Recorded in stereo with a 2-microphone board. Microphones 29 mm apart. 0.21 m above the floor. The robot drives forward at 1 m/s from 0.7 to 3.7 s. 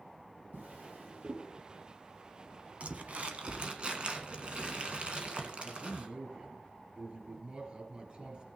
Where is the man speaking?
40° right (ahead or behind), 4 m.